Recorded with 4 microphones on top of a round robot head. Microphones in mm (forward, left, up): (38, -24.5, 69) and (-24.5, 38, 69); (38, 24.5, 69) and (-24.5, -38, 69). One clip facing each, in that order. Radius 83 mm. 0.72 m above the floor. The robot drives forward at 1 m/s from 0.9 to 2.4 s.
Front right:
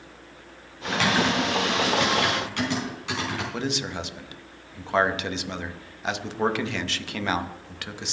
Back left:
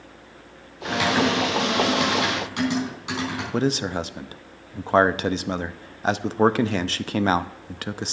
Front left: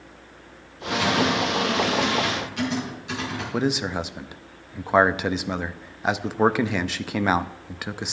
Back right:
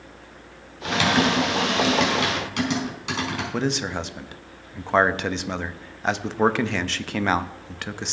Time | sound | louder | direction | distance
0.8 | typing on a keyboard | back left 2 dB, back right 1 dB | 140° right | 3.5 m
3.5 | a man speaking | back left 6 dB, front left 3 dB | 120° left | 0.6 m